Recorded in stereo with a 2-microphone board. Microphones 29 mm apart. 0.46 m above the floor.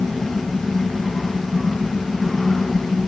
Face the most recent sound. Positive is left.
No sound to turn to.